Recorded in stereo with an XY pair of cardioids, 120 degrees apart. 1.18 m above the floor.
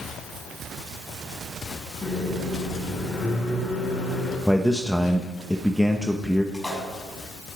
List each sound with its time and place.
2.0 s a microwave: 25° left, 7 m
4.5 s a man speaking: straight ahead, 0.9 m
6.5 s a splash: 5° left, 6 m